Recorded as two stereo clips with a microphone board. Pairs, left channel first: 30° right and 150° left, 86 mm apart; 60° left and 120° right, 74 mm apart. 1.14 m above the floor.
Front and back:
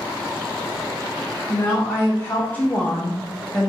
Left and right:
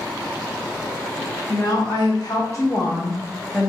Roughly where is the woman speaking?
Ahead left.